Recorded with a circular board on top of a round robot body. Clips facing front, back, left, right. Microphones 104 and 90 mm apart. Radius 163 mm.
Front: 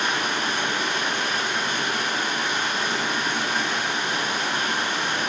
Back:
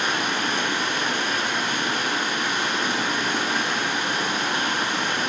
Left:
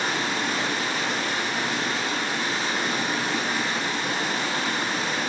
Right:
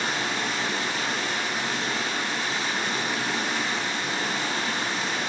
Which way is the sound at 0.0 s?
140° left.